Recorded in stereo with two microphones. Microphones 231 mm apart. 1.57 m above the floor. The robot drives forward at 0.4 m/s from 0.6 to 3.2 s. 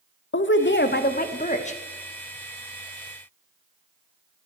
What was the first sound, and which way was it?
A woman speaking, 50° left (ahead or behind).